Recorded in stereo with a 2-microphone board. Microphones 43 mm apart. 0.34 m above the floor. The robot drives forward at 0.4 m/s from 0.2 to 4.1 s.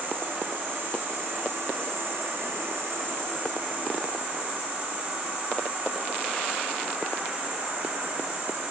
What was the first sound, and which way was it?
An insect, 50° right (ahead or behind).